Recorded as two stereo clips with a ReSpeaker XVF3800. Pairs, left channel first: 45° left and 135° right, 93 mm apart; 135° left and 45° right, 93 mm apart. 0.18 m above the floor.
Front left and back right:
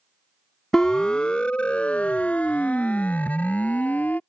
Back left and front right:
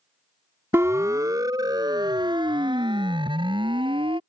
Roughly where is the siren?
Ahead right.